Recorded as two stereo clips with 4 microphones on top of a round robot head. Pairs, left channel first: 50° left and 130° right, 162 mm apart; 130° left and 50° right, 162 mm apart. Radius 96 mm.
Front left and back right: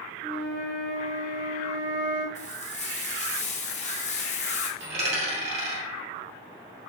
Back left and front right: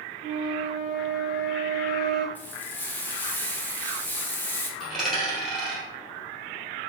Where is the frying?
55° left, 0.8 m.